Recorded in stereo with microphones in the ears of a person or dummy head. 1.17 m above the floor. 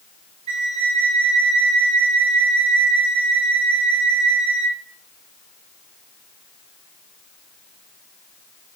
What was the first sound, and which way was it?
A flute, 35° right (ahead or behind).